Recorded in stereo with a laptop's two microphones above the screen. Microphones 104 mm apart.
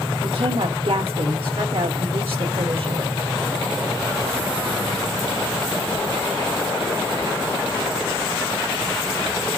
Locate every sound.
0.2 s a woman speaking: 70° right (ahead or behind), 0.8 m